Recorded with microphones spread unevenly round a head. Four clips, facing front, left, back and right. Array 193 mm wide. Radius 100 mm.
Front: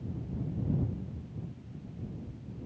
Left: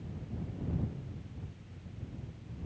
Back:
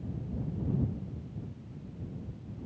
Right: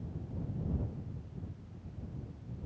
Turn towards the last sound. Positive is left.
No sound to turn to.